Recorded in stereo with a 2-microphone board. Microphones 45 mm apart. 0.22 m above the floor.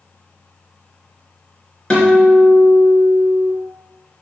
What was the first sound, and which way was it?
A guitar, 15° left (ahead or behind).